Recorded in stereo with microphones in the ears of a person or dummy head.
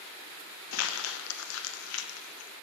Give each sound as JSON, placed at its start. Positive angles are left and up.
{"t": 0.7, "sound": "crumpling", "side_deg": 70, "distance_m": 0.8}